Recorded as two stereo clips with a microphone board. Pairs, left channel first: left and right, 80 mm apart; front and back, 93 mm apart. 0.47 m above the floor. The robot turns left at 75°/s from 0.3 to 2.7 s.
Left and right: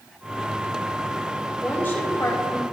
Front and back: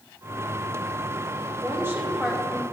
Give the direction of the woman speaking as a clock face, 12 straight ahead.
7 o'clock.